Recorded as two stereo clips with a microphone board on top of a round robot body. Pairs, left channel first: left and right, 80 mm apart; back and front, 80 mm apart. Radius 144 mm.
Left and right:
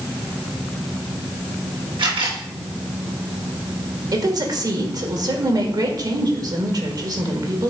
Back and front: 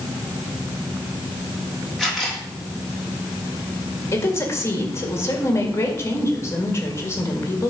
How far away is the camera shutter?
About 3 m.